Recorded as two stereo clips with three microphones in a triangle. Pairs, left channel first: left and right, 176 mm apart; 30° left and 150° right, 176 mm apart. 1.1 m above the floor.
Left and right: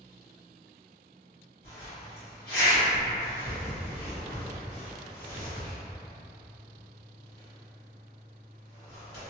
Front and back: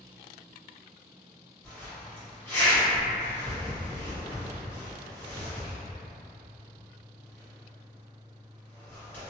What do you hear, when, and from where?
1.6 s a zipper: 110° left, 1.2 m